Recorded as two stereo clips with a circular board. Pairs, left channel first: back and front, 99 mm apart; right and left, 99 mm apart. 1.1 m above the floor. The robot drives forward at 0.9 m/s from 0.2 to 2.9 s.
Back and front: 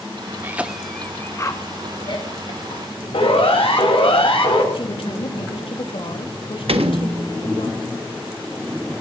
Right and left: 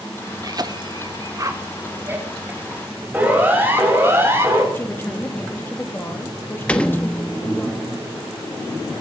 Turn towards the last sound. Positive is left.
turn(degrees=-10)